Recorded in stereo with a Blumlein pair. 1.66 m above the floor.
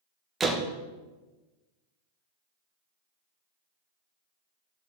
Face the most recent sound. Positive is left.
turn(degrees=-15)